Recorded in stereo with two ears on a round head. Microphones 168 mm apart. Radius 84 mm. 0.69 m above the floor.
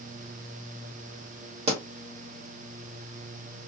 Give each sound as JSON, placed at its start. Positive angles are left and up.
{"t": 1.7, "sound": "a pop", "side_deg": -35, "distance_m": 1.2}